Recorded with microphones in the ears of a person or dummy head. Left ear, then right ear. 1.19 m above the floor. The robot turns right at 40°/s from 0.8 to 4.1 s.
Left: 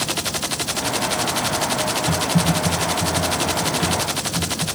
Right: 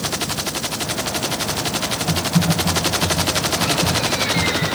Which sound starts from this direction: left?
Typing on a keyboard, at 2.1 s.